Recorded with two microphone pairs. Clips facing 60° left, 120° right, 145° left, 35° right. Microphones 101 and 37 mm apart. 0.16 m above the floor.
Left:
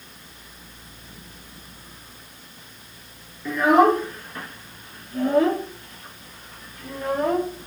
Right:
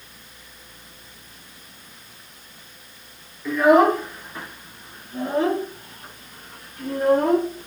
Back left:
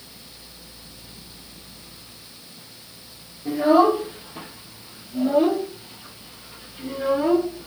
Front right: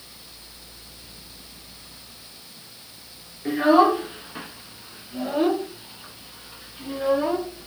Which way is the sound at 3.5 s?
25° right.